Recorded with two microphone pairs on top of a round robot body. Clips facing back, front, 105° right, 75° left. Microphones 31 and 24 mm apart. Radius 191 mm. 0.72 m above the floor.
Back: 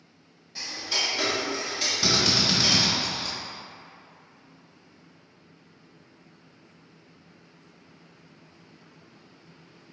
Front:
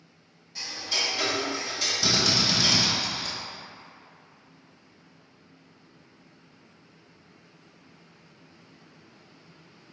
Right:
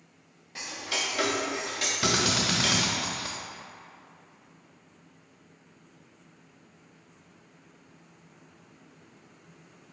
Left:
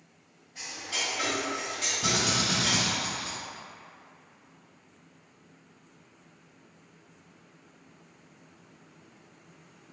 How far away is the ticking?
About 0.5 m.